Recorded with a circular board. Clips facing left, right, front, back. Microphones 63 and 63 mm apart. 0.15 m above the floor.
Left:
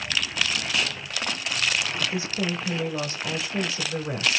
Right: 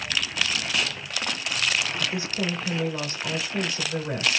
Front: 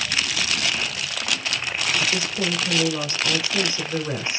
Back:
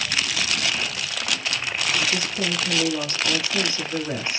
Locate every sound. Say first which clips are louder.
2.0 s a woman speaking: even, front 1 dB; 25° left, 1.5 m